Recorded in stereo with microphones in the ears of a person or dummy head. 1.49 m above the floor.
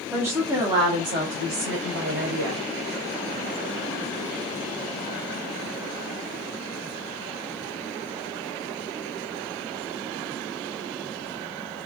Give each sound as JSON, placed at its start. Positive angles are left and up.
{"t": 0.1, "sound": "a woman speaking", "side_deg": -10, "distance_m": 0.7}